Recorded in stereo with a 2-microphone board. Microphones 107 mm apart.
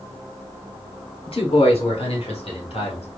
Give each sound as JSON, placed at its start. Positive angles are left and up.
{"t": 1.3, "sound": "a man speaking", "side_deg": 65, "distance_m": 1.6}